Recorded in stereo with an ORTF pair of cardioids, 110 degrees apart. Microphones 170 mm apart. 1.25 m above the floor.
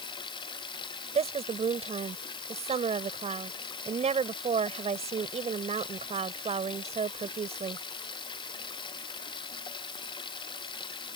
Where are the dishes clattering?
I don't hear dishes clattering.